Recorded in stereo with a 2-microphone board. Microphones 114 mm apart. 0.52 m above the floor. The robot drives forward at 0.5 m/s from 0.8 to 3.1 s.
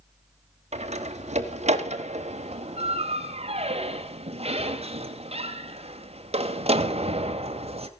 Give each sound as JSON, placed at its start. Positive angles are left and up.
{"t": 0.7, "sound": "a door slam", "side_deg": -70, "distance_m": 1.7}